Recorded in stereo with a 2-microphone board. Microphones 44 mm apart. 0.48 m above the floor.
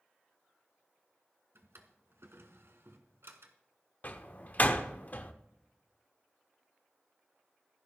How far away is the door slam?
About 0.8 m.